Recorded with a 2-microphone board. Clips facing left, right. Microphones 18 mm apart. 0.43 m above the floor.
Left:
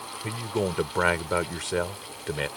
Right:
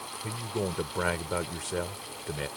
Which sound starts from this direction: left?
A man speaking, at 0.2 s.